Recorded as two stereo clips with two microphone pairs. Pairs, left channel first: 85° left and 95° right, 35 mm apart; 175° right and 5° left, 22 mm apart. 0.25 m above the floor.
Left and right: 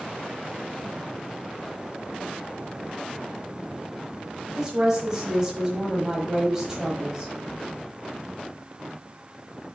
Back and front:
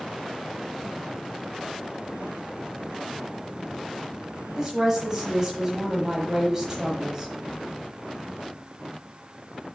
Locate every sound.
4.6 s a woman speaking: 40° right, 1.2 m